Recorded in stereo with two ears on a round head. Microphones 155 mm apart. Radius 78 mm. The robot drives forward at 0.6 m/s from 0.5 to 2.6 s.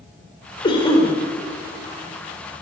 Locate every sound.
0.6 s a cough: 30° left (ahead or behind), 3.5 m